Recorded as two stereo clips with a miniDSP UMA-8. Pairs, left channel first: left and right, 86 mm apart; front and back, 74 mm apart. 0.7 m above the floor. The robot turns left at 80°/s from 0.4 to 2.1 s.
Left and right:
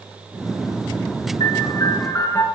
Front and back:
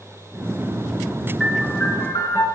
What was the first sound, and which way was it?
A piano, 85° left.